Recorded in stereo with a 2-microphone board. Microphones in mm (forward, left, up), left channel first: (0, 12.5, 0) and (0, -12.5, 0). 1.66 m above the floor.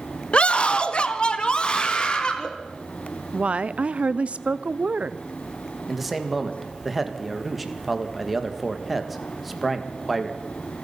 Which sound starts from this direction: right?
A woman speaking, at 3.3 s.